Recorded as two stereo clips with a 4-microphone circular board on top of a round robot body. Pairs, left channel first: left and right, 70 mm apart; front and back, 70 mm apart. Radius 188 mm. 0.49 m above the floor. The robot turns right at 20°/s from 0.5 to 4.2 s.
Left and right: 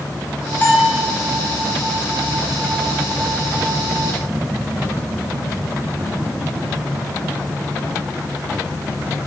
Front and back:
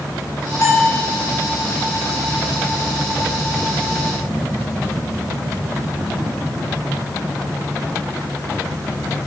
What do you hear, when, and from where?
0.6 s a bell: 25° left, 4 m; by 1.0 s 35° left, 4 m